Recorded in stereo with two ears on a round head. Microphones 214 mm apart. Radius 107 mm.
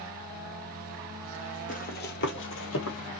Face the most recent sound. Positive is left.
turn(degrees=65)  # may be behind; listen again after turning